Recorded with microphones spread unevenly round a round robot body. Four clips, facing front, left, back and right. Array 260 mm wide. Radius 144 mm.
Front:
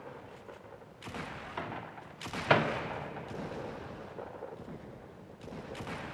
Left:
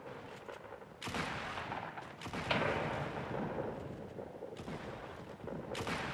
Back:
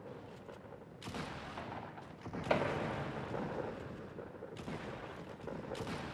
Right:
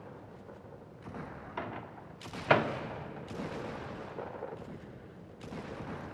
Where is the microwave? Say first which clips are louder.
Right 2 dB, front 5 dB; 45° right, 1.6 m.